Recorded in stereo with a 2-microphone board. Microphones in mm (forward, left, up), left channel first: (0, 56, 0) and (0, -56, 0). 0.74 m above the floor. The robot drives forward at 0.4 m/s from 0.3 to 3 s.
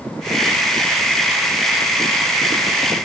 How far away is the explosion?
No explosion in this recording.